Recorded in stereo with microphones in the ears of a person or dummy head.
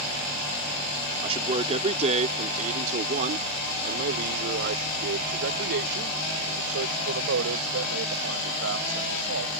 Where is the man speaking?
25° right (ahead or behind); by 9.6 s 85° right.